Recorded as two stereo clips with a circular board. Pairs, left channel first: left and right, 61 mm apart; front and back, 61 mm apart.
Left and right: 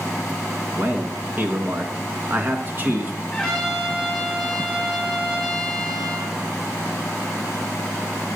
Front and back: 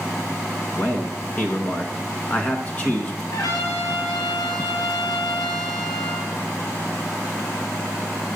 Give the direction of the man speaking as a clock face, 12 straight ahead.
2 o'clock.